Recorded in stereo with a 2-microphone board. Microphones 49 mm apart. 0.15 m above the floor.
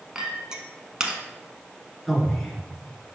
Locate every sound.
0.1 s a clink: 15° right (ahead or behind), 0.9 m
2.1 s a man speaking: centre (ahead or behind), 1.7 m